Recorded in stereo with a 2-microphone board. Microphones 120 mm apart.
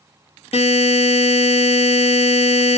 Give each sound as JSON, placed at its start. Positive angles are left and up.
{"t": 0.5, "sound": "a buzzer", "side_deg": 60, "distance_m": 2.5}